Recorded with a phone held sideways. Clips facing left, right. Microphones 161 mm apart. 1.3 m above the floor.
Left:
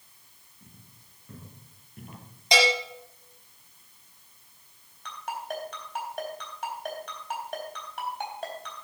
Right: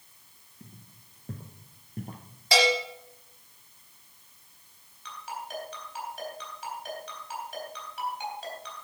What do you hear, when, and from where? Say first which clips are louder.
0.6 s footsteps: right 4 dB; 45° right (ahead or behind), 3 m; by 2.2 s 35° right (ahead or behind), 1.5 m
2.5 s a bell: even; 20° left (ahead or behind), 4.5 m
5.0 s a ringtone: left 4 dB; 50° left (ahead or behind), 3.5 m